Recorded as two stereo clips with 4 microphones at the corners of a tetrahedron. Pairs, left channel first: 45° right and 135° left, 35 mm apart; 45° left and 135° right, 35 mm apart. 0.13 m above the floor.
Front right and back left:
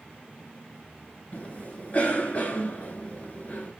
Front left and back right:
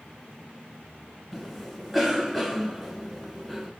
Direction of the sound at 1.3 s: 45° right.